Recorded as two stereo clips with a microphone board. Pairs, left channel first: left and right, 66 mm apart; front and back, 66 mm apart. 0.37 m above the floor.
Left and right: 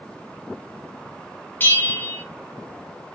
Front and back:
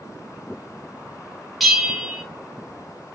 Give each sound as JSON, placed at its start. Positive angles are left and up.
{"t": 1.6, "sound": "a bell", "azimuth_deg": 90, "distance_m": 0.7}